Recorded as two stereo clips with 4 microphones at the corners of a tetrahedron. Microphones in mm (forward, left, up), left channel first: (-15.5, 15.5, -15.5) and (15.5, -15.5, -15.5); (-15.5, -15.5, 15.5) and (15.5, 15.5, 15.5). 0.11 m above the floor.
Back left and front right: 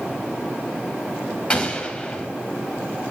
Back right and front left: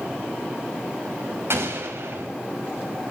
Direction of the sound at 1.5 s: 70° left.